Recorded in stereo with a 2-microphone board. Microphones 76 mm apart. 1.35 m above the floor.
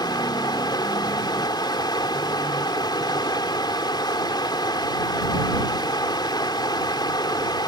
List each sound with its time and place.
0.0 s running water: 75° left (ahead or behind)